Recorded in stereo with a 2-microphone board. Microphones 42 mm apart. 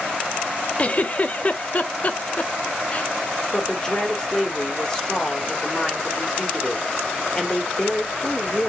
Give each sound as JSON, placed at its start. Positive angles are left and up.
{"t": 0.8, "sound": "a giggle", "side_deg": 30, "distance_m": 0.5}
{"t": 3.5, "sound": "a woman speaking", "side_deg": 15, "distance_m": 1.3}